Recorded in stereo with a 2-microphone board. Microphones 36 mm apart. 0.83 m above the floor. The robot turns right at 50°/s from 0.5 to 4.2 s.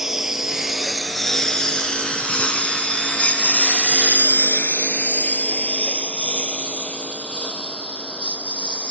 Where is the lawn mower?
10° right (ahead or behind); by 8.9 s 30° left (ahead or behind).